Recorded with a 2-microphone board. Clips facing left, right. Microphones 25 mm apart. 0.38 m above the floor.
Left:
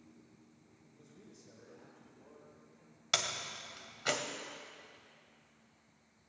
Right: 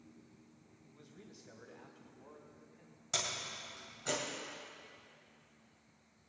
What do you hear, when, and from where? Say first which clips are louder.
0.8 s a man speaking: right 2 dB; 60° right (ahead or behind), 2.5 m; by 3.0 s 40° right (ahead or behind), 3 m
3.1 s a door slam: left 3 dB; 60° left (ahead or behind), 1.2 m